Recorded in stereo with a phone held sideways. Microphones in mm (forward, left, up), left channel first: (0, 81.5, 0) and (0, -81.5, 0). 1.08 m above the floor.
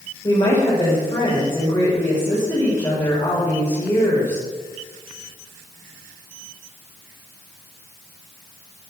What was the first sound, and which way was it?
A woman speaking, 25° left (ahead or behind).